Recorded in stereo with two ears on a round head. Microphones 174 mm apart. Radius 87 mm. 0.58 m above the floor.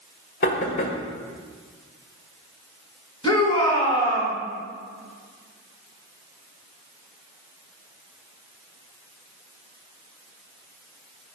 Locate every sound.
0.4 s knocking: 45° left (ahead or behind), 1.8 m
3.2 s a shout: 25° left (ahead or behind), 5 m